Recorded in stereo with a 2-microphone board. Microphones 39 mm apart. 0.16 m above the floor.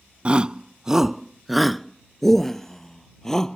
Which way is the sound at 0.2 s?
25° right (ahead or behind).